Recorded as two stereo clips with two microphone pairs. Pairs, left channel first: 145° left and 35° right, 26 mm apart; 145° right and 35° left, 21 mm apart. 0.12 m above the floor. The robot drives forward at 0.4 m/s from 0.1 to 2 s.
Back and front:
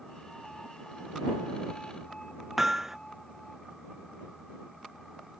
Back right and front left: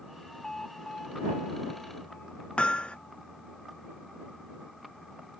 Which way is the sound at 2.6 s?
105° right.